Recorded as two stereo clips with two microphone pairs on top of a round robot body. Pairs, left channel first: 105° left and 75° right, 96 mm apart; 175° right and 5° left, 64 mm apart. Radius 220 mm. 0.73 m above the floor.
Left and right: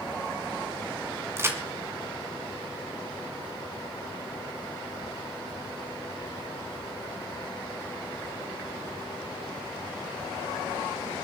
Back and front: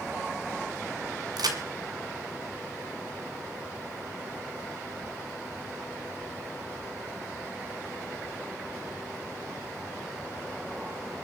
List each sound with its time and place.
1.4 s a crack: 10° right, 1.7 m